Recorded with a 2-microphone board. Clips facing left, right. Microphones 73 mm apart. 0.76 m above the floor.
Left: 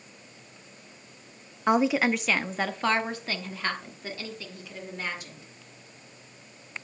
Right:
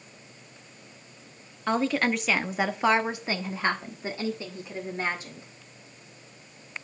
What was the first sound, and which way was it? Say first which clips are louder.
A woman speaking: left 2 dB; 20° left (ahead or behind).